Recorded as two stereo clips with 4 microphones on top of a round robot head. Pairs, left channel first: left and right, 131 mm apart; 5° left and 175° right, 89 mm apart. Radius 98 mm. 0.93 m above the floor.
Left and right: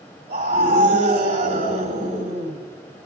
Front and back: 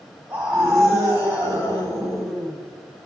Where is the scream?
120° right, 3.5 m.